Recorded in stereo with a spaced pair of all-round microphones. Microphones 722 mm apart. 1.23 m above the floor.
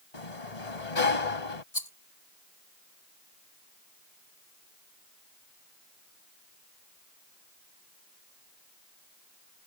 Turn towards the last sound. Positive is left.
turn(degrees=55)  # may be behind; listen again after turning